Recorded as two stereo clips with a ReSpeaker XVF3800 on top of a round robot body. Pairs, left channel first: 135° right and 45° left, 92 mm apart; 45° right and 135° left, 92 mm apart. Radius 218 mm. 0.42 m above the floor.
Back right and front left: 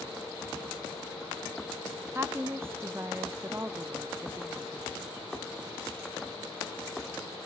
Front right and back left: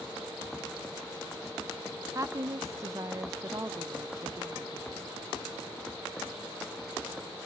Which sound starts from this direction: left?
A woman speaking, at 2.1 s.